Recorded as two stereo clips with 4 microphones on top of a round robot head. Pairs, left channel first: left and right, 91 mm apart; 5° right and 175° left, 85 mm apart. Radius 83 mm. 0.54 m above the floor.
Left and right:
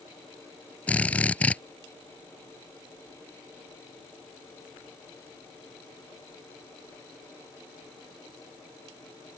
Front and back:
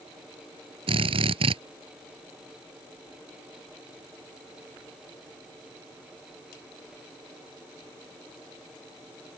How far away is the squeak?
No squeak in this recording.